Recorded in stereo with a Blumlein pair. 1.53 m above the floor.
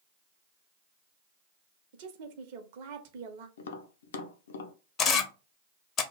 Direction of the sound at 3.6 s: 60° left.